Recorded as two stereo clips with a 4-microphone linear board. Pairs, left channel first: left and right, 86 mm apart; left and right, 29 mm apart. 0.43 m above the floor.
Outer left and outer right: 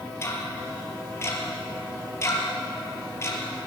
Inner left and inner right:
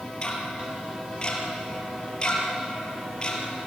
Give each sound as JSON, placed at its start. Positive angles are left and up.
{"t": 0.2, "sound": "ticking", "side_deg": 30, "distance_m": 4.5}